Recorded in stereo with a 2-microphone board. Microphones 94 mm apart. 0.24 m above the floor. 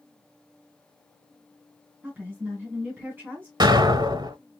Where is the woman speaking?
20° right (ahead or behind), 2.5 m.